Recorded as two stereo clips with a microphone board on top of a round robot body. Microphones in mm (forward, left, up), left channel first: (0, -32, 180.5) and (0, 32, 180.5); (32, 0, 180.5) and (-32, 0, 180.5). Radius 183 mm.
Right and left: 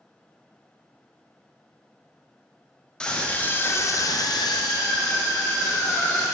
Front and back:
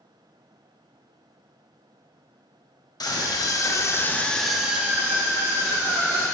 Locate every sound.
3.0 s a scream: 15° right, 1.9 m; by 6.2 s 140° right, 3 m